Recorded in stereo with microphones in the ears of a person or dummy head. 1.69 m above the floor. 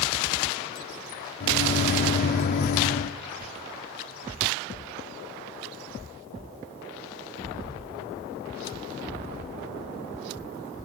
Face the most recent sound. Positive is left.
turn(degrees=-55)  # may be behind; listen again after turning